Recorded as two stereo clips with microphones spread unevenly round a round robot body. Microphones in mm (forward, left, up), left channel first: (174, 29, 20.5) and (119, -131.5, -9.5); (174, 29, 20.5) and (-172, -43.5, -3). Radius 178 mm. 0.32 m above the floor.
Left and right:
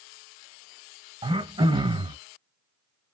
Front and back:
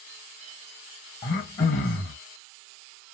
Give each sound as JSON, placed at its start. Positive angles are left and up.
{"t": 1.2, "sound": "throat clearing", "azimuth_deg": -60, "distance_m": 1.3}